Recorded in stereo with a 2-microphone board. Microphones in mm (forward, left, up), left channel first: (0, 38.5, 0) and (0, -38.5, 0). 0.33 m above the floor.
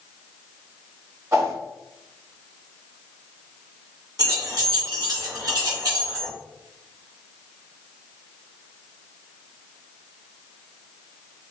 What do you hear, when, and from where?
1.3 s a whoosh: 40° right (ahead or behind), 1.2 m
4.2 s keys jangling: 60° right (ahead or behind), 1.8 m